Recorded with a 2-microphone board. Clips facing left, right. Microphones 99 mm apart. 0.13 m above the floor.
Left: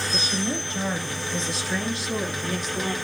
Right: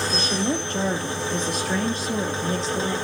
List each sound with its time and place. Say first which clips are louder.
0.1 s a woman speaking: right 3 dB; 65° right (ahead or behind), 3.5 m; by 3.0 s 25° right (ahead or behind), 3 m